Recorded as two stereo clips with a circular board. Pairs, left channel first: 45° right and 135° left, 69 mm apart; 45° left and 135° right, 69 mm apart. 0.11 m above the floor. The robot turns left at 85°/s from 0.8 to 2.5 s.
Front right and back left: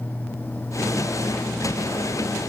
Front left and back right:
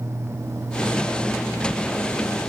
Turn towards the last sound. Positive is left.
No sound to turn to.